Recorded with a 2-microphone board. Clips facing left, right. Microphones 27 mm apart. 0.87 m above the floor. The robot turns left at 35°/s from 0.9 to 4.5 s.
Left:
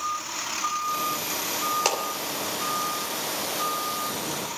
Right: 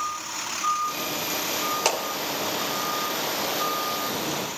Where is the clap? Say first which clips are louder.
Right 2 dB; centre (ahead or behind), 2.5 m; by 2.0 s 5° left (ahead or behind), 2.5 m.